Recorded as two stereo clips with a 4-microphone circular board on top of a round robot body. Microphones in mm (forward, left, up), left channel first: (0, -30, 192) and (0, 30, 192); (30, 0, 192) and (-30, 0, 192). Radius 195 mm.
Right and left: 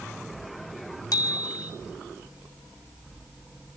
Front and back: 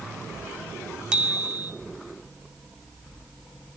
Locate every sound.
1.1 s a bicycle bell: 105° right, 2.5 m